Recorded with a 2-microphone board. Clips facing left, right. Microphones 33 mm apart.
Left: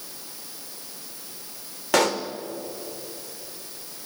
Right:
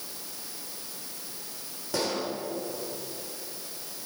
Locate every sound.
1.9 s a pop: 75° left (ahead or behind), 1.2 m